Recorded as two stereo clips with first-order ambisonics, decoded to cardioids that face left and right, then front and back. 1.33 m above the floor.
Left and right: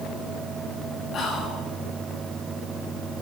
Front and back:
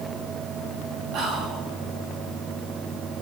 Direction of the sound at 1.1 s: 145° left.